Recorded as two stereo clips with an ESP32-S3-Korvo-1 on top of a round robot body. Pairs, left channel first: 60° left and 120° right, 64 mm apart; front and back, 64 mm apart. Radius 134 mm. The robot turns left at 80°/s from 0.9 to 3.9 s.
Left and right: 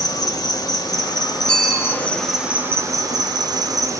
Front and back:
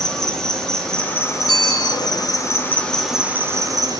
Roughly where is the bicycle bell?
Ahead.